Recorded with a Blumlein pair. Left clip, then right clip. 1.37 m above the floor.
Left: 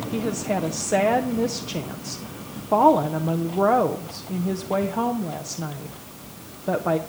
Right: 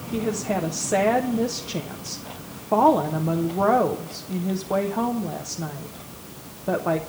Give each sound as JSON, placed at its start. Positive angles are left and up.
{"t": 0.1, "sound": "a woman speaking", "azimuth_deg": 5, "distance_m": 0.8}